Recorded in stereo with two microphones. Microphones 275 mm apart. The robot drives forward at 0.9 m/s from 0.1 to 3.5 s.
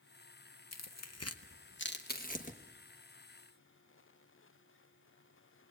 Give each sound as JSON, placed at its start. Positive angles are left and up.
{"t": 0.7, "sound": "tearing paper", "side_deg": 70, "distance_m": 0.8}